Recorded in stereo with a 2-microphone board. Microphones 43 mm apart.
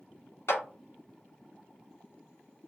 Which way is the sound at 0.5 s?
75° left (ahead or behind).